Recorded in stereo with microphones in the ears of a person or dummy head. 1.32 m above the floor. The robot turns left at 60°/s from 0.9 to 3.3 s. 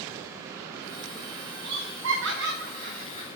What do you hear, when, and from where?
1.6 s laughter: 55° right (ahead or behind), 1.1 m; by 3.3 s 25° right (ahead or behind), 1.1 m